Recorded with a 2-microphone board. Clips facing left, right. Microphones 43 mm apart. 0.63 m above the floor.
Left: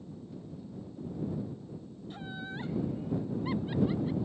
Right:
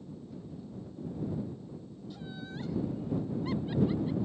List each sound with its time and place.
2.1 s laughter: 40° left (ahead or behind); by 4.2 s 10° left (ahead or behind)